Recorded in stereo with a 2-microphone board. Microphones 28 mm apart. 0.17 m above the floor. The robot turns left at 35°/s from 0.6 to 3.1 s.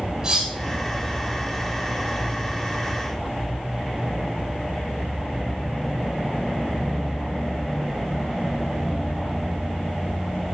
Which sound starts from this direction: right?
Cutlery clinking, at 0.2 s.